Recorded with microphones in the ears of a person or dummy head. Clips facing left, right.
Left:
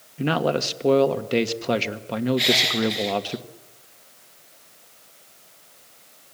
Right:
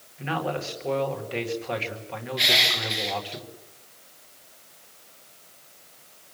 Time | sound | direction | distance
0.2 | a man speaking | 55° left (ahead or behind) | 1.7 m
2.4 | crushing | centre (ahead or behind) | 0.8 m